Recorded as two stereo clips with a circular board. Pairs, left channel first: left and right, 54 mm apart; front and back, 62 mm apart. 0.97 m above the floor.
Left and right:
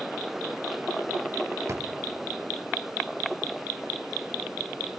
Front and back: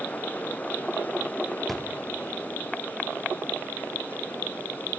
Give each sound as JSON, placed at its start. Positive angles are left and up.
{"t": 1.7, "sound": "a drawer", "azimuth_deg": -85, "distance_m": 0.8}